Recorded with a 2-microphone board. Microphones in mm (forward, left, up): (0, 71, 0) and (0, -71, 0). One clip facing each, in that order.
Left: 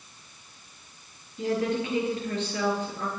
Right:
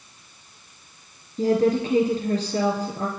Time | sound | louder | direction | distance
1.4 | a woman speaking | right 7 dB | 35° right (ahead or behind) | 3 m